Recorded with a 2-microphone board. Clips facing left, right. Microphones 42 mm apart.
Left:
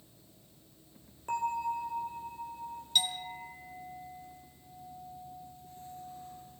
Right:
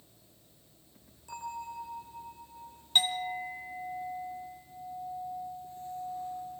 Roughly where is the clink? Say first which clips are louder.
Right 4 dB; right.